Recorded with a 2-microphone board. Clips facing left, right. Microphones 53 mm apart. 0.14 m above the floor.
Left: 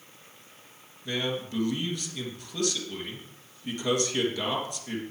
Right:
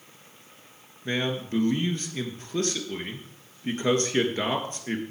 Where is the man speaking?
40° right (ahead or behind), 2.5 m.